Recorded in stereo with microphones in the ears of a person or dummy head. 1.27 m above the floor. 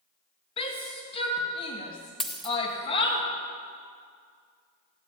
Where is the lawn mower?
No lawn mower in this recording.